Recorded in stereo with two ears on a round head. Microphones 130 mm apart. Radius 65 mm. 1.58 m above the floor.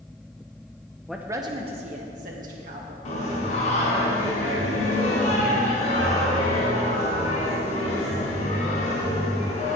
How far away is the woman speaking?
About 0.6 m.